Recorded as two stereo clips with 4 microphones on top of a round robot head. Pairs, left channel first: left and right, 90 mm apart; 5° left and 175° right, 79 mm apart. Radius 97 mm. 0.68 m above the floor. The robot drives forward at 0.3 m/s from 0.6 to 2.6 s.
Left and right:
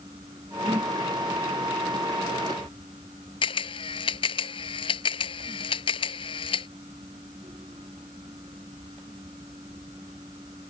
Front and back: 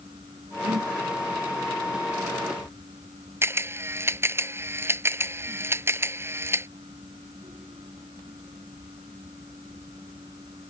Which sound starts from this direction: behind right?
A whoosh, at 0.6 s.